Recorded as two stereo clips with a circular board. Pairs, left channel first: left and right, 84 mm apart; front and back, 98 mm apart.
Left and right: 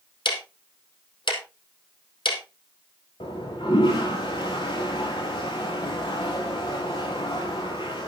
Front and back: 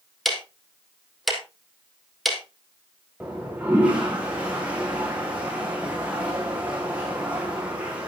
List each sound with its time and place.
0.2 s ticking: 90° left, 3 m
3.2 s a toilet flushing: 105° left, 4.5 m